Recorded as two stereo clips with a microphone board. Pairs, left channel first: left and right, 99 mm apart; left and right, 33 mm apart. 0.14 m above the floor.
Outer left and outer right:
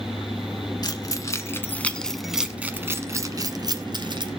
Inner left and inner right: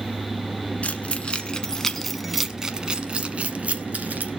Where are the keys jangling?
45° left (ahead or behind), 1.4 m; by 4.3 s 55° right (ahead or behind), 1.7 m.